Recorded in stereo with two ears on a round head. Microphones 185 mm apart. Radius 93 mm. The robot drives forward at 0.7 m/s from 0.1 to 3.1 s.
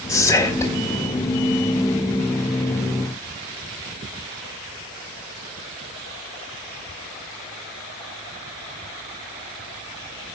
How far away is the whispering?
About 1.7 m.